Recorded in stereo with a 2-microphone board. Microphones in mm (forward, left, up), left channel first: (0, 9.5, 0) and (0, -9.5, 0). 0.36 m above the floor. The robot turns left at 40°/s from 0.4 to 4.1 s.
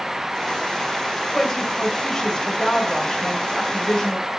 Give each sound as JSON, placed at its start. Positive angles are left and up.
{"t": 1.3, "sound": "a woman speaking", "azimuth_deg": -175, "distance_m": 1.9}